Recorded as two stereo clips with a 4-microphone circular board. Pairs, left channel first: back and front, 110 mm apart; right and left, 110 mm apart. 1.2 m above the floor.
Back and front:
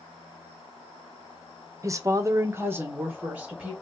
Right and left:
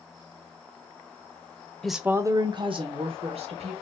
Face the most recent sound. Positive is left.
turn(degrees=75)